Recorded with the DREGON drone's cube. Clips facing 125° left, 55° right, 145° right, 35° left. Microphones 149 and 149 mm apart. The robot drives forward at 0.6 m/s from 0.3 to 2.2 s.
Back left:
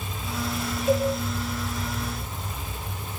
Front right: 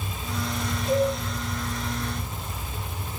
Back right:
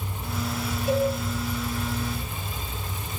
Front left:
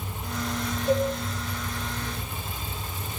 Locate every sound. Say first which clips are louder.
0.9 s a cowbell: even, even; 125° left, 4 m